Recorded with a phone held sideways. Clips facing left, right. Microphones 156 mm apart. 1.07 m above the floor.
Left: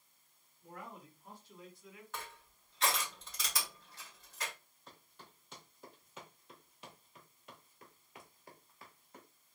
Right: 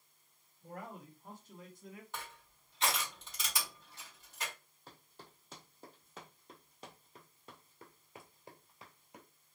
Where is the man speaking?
45° right (ahead or behind), 2.0 m.